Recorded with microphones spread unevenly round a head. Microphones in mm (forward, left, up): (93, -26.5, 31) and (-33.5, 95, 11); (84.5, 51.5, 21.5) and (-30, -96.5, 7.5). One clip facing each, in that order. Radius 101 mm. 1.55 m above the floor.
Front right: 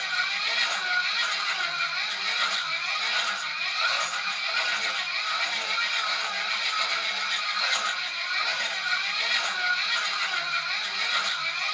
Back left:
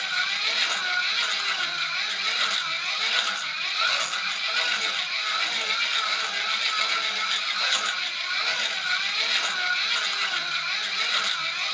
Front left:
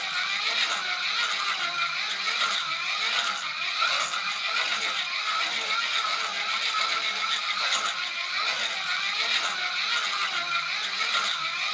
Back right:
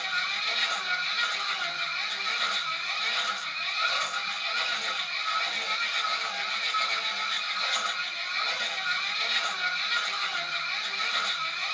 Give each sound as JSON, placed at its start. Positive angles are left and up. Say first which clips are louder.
{"t": 0.0, "sound": "a machine running", "louder": "even, even", "azimuth_deg": 80, "distance_m": 0.7}